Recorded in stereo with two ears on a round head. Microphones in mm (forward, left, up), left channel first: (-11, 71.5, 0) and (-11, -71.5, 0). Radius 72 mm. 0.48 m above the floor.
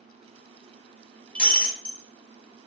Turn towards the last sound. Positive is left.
turn(degrees=10)  # may be behind; listen again after turning